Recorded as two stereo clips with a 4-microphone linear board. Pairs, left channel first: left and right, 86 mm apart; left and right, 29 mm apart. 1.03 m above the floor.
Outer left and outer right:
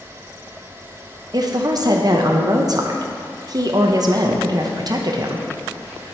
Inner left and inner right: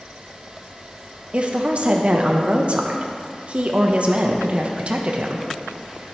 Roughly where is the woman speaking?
Right.